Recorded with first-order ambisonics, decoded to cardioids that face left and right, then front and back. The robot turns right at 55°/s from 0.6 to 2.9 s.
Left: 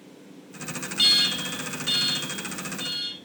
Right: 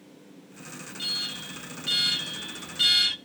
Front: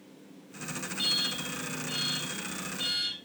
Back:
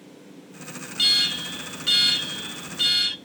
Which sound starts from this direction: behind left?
An alarm, at 1.0 s.